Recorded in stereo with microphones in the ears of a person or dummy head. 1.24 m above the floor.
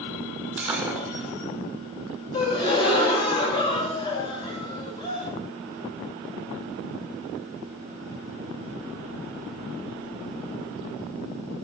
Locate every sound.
0.6 s breaking glass: 10° right (ahead or behind), 1.6 m
2.3 s a gasp: 30° left (ahead or behind), 2.5 m